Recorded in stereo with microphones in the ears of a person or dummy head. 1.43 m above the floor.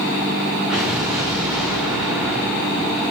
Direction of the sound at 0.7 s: 5° right (ahead or behind).